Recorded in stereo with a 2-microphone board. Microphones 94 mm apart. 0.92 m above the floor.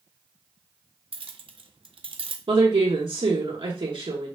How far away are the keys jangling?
About 0.5 m.